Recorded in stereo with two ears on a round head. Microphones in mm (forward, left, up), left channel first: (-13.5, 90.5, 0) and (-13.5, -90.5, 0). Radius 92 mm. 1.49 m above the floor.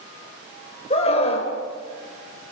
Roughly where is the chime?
No chime in this recording.